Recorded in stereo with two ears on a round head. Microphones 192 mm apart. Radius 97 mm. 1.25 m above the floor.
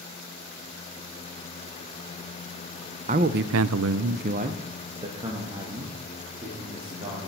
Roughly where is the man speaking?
Right.